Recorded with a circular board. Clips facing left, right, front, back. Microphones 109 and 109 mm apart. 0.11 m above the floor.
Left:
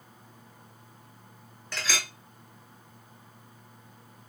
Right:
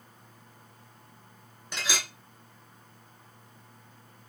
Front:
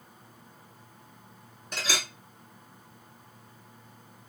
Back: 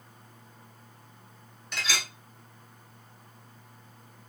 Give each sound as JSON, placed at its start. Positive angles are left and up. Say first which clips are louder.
{"t": 1.7, "sound": "a clink", "louder": "even, front 1 dB", "azimuth_deg": -25, "distance_m": 0.9}